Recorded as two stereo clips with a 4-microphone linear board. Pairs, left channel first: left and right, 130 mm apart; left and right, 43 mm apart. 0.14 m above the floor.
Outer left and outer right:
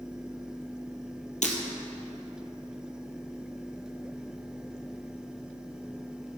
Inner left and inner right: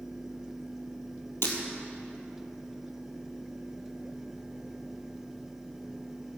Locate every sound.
1.4 s breaking glass: 70° left (ahead or behind), 1.6 m